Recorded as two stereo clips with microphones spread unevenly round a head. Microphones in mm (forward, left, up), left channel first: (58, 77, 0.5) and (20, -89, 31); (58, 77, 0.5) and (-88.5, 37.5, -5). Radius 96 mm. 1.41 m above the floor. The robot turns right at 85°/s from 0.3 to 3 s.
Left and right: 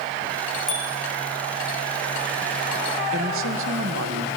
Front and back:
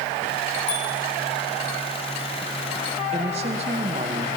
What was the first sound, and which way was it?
A bicycle bell, 15° right.